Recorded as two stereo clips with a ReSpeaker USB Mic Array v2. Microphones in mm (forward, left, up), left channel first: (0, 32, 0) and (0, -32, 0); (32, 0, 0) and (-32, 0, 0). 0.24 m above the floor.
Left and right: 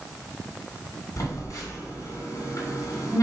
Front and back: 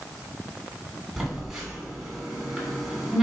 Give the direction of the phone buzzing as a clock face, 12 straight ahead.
9 o'clock.